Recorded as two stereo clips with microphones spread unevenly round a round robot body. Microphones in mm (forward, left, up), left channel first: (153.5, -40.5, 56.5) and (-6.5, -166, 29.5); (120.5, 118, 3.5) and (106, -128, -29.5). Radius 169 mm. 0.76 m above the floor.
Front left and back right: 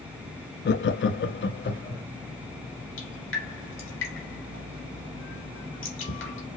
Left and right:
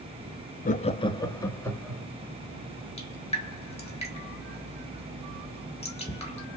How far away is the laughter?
About 0.6 m.